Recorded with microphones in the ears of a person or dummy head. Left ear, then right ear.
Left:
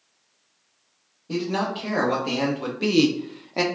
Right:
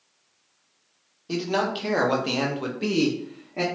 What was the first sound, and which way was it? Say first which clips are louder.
A man speaking: right 1 dB; 45° right (ahead or behind).